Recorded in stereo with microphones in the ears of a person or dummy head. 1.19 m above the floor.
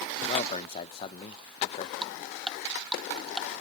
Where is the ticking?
Centre (ahead or behind).